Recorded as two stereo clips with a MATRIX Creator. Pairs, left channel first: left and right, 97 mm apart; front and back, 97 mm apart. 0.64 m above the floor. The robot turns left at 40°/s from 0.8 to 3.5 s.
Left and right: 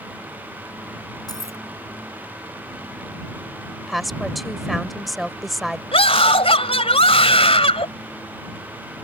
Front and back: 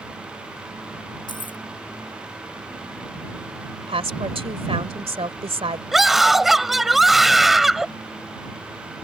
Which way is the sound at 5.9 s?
90° left.